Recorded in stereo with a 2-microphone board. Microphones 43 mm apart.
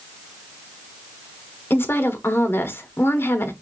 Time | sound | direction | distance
1.7 | a woman speaking | 65° left (ahead or behind) | 1.0 m